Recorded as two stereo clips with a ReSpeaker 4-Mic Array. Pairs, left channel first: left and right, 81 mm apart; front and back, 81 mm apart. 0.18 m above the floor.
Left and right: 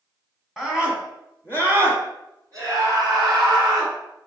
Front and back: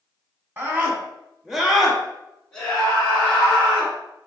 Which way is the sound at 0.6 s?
170° right.